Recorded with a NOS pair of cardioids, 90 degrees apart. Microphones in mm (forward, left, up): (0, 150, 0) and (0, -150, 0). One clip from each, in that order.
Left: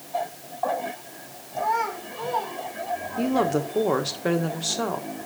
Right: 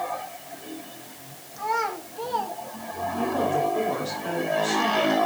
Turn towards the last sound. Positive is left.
turn(degrees=60)